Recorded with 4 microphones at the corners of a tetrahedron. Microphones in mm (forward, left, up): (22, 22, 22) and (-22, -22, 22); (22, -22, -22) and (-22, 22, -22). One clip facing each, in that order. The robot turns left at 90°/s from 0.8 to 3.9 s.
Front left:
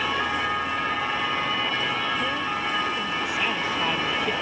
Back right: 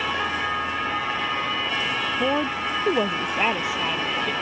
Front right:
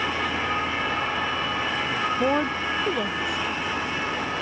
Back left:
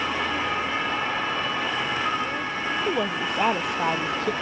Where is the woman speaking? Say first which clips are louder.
Back right 3 dB, front right 5 dB; 80° right; by 4.3 s 130° left.